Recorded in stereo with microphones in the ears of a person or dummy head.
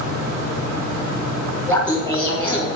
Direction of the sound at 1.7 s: 5° left (ahead or behind).